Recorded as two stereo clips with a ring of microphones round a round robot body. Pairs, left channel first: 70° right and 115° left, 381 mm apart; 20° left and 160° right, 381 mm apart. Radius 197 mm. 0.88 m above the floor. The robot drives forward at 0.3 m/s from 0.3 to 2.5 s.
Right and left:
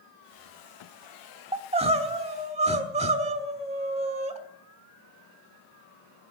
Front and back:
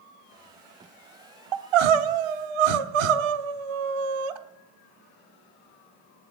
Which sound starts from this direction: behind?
Crying, at 1.5 s.